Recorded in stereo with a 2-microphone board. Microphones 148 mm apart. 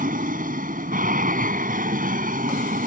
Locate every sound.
0.0 s an aircraft: 65° right (ahead or behind)